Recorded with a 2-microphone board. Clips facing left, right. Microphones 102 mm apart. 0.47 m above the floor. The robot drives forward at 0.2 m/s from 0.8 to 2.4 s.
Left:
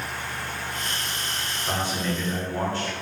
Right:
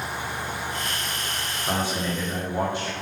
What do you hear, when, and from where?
1.7 s a man speaking: 15° right (ahead or behind), 0.9 m